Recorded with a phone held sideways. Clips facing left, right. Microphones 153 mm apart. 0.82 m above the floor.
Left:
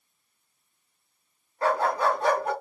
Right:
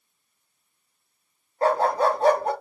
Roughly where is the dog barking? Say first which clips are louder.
Right 3 dB; right.